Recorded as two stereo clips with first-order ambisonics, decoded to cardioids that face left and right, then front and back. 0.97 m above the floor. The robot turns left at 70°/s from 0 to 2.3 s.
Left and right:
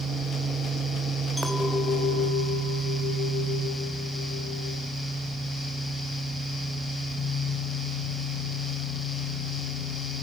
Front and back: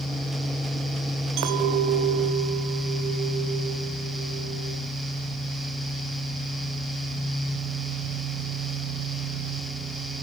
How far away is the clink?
About 2.5 m.